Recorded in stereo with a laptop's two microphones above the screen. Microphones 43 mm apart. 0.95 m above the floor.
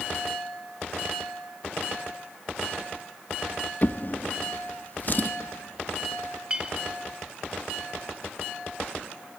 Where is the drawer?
45° left (ahead or behind), 0.7 m.